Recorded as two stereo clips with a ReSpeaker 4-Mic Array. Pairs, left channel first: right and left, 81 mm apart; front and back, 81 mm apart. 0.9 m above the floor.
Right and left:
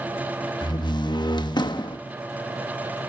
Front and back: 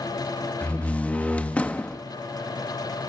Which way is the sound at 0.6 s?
70° right.